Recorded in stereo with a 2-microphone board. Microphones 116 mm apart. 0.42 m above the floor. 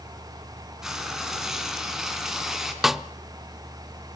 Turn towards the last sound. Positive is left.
turn(degrees=0)  # may be behind; listen again after turning